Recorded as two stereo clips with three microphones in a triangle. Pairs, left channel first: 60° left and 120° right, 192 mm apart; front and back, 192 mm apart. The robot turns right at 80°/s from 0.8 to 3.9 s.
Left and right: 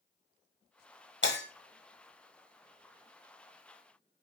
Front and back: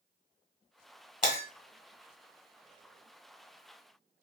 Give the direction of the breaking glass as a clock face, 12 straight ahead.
10 o'clock.